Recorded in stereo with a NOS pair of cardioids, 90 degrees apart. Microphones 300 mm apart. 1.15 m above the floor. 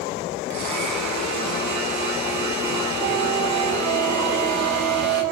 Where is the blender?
65° right, 6.5 m.